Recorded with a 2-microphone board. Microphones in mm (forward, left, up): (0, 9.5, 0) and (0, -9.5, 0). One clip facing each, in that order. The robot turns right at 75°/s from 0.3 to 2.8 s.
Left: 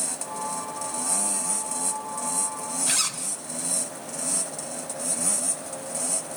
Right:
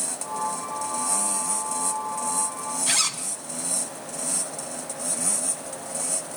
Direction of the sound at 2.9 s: 25° right (ahead or behind).